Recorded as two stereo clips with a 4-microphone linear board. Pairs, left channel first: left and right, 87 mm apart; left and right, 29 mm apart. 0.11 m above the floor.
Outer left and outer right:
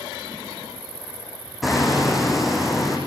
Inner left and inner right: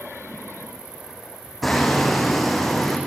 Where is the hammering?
Centre (ahead or behind), 5.5 m.